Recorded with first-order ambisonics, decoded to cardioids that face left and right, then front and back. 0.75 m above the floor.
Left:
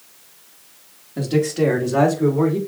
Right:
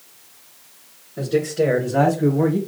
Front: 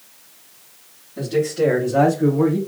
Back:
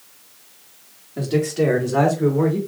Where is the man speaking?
115° left, 1.9 m; by 2.6 s 120° left, 3 m.